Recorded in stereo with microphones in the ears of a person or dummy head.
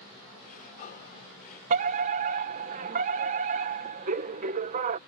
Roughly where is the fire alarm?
Right.